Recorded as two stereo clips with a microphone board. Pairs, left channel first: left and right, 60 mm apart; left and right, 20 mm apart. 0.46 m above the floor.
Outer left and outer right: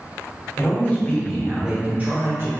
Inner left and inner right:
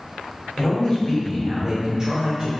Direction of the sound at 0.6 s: 40° left (ahead or behind).